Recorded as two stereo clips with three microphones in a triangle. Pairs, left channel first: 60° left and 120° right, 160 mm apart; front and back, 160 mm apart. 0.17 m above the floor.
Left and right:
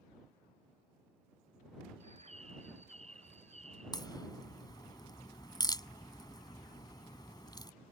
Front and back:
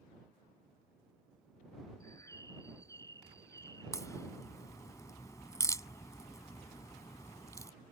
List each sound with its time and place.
2.0 s a bird: 70° right
3.9 s a crack: 40° left